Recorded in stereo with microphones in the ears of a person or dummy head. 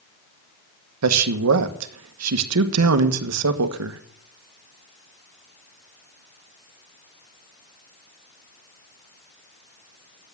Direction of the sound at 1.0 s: 85° right.